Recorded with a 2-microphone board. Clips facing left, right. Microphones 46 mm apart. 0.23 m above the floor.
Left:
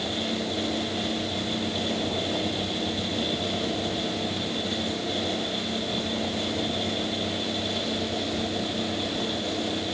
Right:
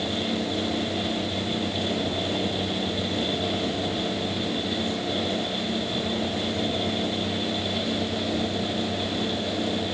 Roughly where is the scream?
I don't hear a scream.